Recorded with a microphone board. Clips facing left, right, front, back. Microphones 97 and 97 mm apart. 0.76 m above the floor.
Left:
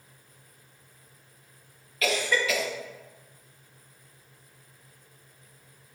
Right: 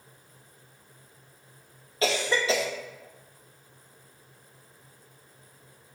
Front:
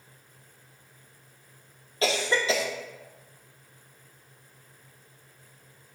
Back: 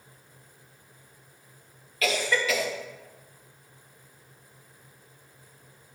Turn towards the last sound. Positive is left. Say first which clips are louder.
# right 1 dB, front 1 dB
turn(degrees=-45)